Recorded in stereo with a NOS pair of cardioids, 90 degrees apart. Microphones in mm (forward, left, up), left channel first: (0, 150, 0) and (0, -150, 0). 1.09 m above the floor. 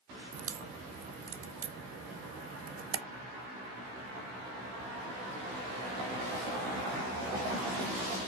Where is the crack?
50° right, 0.6 m.